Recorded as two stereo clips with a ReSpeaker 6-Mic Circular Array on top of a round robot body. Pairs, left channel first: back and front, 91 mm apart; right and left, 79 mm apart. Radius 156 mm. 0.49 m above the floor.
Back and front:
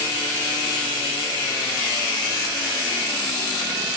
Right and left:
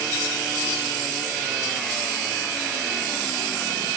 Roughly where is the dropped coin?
No dropped coin in this recording.